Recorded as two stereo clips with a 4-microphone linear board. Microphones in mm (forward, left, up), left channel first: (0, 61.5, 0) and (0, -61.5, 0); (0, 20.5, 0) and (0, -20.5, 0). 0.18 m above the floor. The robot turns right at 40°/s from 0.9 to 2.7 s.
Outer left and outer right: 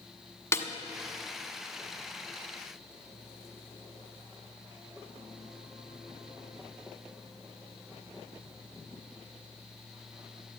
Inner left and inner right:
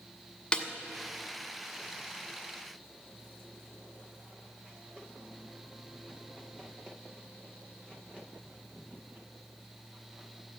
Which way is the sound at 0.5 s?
25° left (ahead or behind).